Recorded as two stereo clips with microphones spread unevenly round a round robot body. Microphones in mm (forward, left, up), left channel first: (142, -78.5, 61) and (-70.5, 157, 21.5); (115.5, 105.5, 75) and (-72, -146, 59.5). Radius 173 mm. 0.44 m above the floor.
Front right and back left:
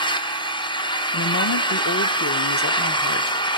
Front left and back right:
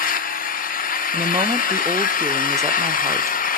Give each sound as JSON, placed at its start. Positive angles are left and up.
{"t": 0.0, "sound": "an engine running", "azimuth_deg": 25, "distance_m": 1.1}
{"t": 1.1, "sound": "a woman speaking", "azimuth_deg": -55, "distance_m": 0.8}